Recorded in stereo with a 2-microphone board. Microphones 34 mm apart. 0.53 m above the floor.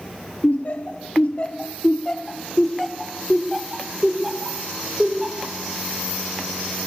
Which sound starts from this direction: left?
Laughter, at 0.4 s.